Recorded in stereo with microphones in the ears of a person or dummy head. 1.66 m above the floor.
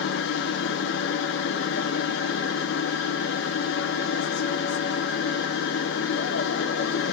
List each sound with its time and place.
0.0 s a machine running: 70° left (ahead or behind), 1.0 m